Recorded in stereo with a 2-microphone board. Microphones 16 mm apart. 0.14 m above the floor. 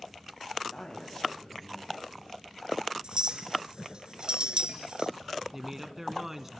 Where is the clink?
55° right (ahead or behind), 1.1 m.